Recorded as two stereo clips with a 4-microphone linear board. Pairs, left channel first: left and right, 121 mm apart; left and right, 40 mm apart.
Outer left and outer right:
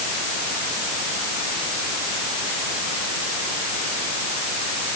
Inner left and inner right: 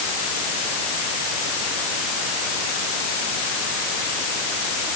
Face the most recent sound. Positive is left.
No sound to turn to.